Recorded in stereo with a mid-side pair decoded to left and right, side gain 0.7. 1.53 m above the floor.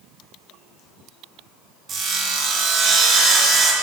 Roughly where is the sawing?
Ahead right.